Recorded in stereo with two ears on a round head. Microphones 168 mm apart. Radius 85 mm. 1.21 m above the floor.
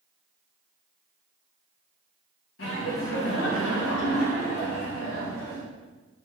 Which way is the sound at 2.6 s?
70° left (ahead or behind).